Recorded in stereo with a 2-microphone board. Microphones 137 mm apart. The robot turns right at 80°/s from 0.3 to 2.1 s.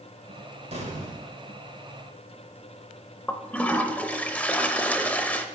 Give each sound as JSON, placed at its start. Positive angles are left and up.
{"t": 0.7, "sound": "an explosion", "azimuth_deg": -115, "distance_m": 1.6}
{"t": 3.3, "sound": "a toilet flushing", "side_deg": 10, "distance_m": 0.7}